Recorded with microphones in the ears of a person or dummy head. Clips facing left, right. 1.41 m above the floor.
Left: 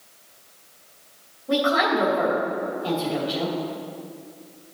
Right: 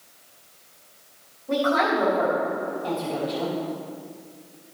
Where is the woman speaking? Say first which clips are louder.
Left 1 dB; 5° left (ahead or behind), 3 m.